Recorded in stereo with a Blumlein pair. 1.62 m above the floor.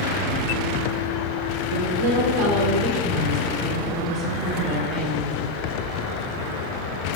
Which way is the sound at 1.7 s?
55° right.